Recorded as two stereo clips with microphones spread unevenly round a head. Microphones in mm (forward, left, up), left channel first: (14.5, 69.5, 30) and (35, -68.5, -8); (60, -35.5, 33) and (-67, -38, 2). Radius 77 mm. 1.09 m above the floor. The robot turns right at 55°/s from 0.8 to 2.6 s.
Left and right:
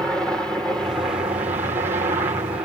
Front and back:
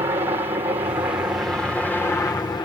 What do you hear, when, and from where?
0.0 s a helicopter: 155° right; by 2.7 s 45° right